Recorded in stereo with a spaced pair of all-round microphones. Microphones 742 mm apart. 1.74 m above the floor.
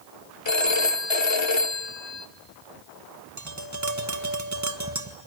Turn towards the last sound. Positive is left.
turn(degrees=-20)  # may be behind; listen again after turning